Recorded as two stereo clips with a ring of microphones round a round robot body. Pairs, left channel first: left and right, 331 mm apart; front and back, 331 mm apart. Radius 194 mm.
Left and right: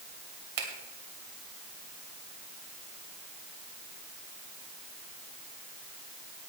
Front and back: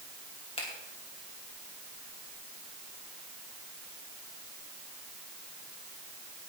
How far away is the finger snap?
About 2.5 m.